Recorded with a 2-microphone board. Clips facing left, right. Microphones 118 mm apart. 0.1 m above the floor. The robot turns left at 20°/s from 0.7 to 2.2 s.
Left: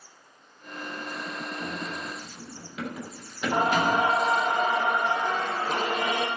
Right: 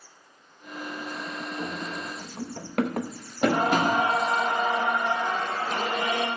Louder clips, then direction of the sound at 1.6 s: Right 1 dB; 25° right (ahead or behind).